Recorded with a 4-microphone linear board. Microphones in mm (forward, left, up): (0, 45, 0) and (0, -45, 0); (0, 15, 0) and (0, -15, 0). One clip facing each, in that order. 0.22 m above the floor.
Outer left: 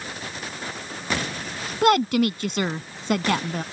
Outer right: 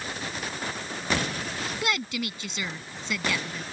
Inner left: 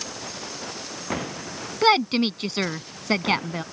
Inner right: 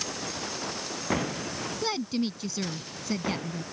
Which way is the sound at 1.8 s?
55° left (ahead or behind).